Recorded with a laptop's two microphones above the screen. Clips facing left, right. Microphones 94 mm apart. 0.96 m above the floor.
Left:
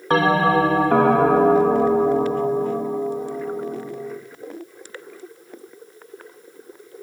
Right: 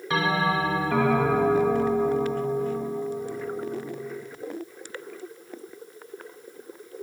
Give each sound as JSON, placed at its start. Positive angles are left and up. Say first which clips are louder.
{"t": 0.1, "sound": "a bell", "louder": "left 8 dB", "side_deg": 50, "distance_m": 0.9}